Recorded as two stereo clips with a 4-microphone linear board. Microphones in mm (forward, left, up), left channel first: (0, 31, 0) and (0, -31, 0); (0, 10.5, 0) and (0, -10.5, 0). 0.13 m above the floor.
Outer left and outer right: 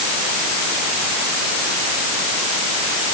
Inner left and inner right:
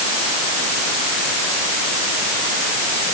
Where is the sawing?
I don't hear sawing.